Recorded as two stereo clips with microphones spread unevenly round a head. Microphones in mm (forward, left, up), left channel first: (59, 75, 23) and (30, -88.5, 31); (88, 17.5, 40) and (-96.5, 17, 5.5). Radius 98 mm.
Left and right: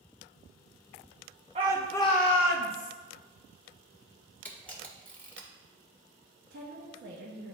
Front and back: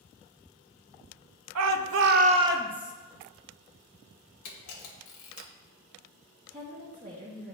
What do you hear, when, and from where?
1.6 s a shout: 160° right, 0.6 m; by 2.9 s 90° left, 1.0 m
4.5 s a camera shutter: straight ahead, 1.4 m
6.5 s a woman speaking: 110° right, 1.0 m